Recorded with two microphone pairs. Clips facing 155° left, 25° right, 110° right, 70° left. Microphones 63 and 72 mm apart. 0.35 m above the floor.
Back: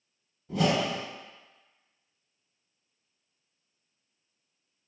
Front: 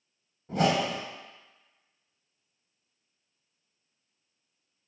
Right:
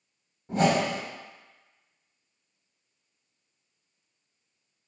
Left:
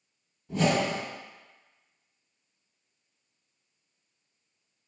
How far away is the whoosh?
About 0.6 m.